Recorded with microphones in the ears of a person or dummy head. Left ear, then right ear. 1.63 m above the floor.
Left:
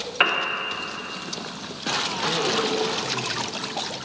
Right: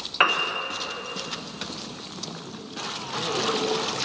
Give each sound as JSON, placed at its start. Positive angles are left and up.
{"t": 0.2, "sound": "a piano", "side_deg": 0, "distance_m": 0.9}